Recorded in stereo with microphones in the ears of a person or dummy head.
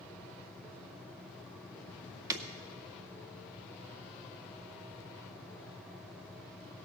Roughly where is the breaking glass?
Right.